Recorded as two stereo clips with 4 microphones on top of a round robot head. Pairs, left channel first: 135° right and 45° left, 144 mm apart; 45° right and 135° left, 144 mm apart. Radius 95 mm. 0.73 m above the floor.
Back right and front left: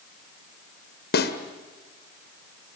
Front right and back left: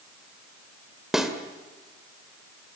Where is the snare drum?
140° right, 1.9 m.